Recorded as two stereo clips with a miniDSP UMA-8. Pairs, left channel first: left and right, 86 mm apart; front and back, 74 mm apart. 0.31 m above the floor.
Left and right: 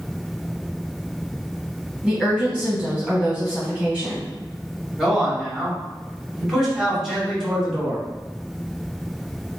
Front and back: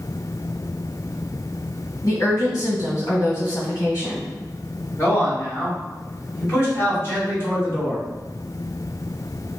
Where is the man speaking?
5° right, 1.8 m.